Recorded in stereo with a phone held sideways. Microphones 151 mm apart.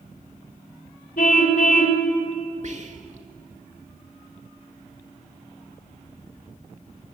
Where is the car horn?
65° left (ahead or behind), 2.5 m.